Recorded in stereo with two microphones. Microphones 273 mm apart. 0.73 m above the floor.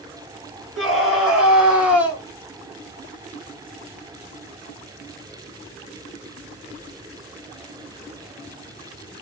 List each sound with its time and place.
0.8 s a scream: centre (ahead or behind), 3 m; by 2.2 s 5° right (ahead or behind), 1.8 m